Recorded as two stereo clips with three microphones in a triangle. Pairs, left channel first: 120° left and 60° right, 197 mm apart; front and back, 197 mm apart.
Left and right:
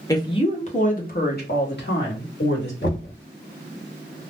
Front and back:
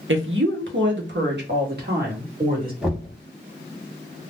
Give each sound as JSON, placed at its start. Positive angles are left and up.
{"t": 0.1, "sound": "a woman speaking", "azimuth_deg": -170, "distance_m": 0.7}
{"t": 2.8, "sound": "knocking", "azimuth_deg": 95, "distance_m": 1.0}